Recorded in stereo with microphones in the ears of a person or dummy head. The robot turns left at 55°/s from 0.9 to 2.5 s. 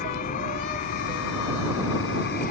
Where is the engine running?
140° left; by 2.5 s 55° left.